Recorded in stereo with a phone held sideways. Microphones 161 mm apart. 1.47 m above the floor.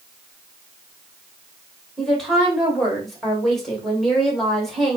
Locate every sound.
2.0 s a woman speaking: centre (ahead or behind), 2 m